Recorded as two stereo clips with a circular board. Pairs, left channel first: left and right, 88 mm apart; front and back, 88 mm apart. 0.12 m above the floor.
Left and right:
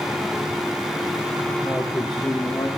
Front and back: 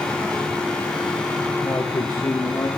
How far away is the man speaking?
About 1.6 m.